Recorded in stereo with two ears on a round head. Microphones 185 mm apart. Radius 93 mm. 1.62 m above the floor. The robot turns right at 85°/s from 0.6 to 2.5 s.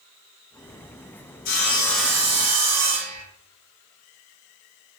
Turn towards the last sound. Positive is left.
turn(degrees=-135)